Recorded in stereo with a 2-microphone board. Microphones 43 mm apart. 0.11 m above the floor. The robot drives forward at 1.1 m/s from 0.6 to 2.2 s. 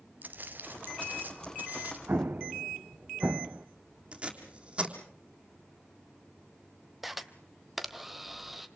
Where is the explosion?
55° right (ahead or behind), 0.5 m; by 3.7 s 50° right (ahead or behind), 0.6 m.